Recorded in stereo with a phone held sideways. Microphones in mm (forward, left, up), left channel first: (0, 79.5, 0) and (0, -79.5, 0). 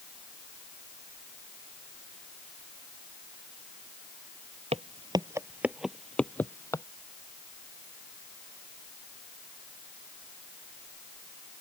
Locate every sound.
4.7 s footsteps: 40° right (ahead or behind); by 6.8 s 20° left (ahead or behind)